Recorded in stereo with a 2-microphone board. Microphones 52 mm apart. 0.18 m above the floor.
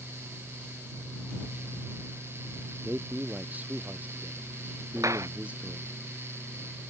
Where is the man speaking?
35° right (ahead or behind); by 6.0 s 25° right (ahead or behind).